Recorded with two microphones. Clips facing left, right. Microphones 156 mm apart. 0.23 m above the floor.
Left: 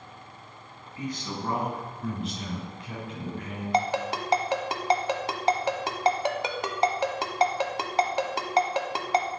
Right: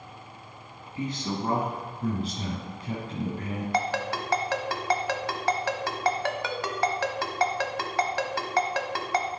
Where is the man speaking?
25° right (ahead or behind), 1.8 m; by 3.6 s 35° right (ahead or behind), 1.4 m.